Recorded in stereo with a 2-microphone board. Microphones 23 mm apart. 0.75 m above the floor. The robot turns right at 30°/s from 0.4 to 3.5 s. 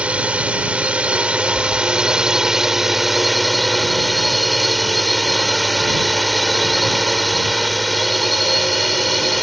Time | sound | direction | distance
0.0 | a drone | 100° right | ?